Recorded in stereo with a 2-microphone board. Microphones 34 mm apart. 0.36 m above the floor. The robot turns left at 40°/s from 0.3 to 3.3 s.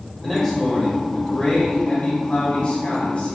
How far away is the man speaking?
About 1.2 m.